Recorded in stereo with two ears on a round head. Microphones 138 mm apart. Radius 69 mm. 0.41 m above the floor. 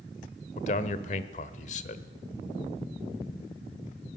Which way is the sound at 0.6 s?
55° left (ahead or behind).